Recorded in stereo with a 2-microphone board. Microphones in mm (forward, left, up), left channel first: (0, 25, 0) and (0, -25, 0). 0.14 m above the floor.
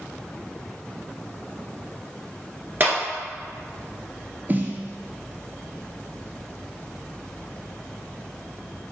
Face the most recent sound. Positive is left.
turn(degrees=-40)  # may be behind; listen again after turning